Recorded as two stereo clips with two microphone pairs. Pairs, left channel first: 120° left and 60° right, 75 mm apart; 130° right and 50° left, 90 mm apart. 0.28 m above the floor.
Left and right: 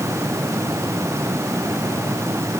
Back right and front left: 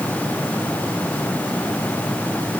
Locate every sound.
Only background noise.